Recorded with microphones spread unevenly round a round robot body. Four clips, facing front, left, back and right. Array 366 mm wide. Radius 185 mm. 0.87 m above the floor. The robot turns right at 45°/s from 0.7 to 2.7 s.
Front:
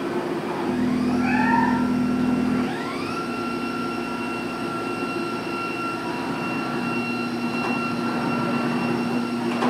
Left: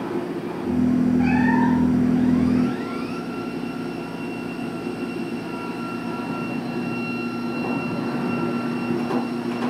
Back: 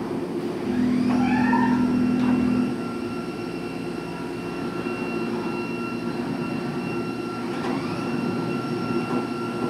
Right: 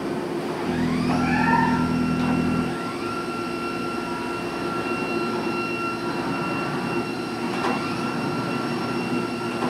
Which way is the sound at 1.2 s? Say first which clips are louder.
Left 2 dB, even; 105° left.